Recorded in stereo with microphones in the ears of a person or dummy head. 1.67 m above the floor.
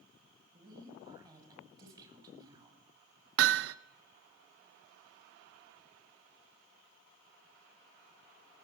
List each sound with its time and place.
0.5 s a woman speaking: 10° right (ahead or behind), 8.5 m
3.4 s hammering: 70° right (ahead or behind), 0.9 m